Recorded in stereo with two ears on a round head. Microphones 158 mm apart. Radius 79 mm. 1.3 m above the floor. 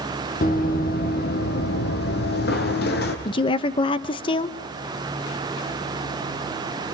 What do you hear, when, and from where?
0.4 s running footsteps: 50° left (ahead or behind), 2.5 m; by 3.1 s 60° left (ahead or behind), 3 m
3.2 s a woman speaking: 30° left (ahead or behind), 0.8 m